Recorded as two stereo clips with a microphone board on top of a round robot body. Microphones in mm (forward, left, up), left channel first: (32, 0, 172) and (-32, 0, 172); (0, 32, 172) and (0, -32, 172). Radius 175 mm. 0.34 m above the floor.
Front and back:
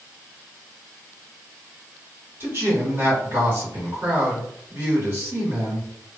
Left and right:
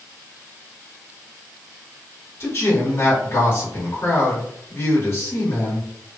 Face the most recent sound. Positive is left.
turn(degrees=135)